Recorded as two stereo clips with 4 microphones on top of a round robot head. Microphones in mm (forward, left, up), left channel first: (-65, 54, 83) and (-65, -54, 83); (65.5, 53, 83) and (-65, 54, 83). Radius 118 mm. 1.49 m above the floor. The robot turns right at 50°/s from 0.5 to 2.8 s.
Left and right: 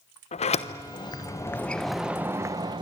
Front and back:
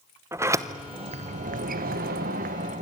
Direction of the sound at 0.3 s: 110° left.